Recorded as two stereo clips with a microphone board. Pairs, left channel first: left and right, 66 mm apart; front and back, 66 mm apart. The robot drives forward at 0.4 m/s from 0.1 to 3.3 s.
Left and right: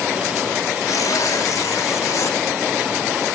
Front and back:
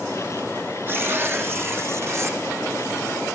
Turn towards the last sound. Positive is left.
turn(degrees=140)